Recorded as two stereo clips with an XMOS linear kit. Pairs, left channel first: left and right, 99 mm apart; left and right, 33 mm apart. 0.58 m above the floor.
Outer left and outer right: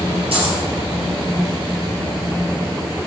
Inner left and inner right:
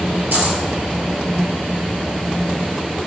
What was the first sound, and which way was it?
A dropped coin, 75° right (ahead or behind).